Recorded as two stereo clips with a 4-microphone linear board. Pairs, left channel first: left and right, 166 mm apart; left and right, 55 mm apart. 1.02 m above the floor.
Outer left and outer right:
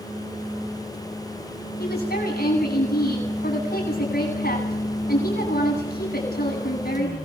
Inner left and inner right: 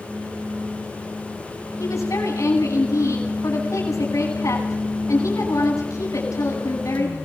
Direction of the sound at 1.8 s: 85° left.